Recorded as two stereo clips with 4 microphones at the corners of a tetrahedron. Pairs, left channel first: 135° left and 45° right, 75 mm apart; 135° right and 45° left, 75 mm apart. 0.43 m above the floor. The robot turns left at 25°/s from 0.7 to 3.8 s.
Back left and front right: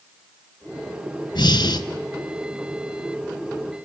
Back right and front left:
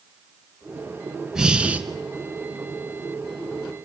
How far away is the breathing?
About 1.0 m.